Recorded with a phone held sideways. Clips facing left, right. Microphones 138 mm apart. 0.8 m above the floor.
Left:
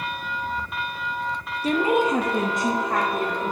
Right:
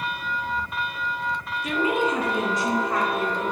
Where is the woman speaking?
35° left (ahead or behind), 0.6 m; by 3.5 s 50° left (ahead or behind), 1.7 m.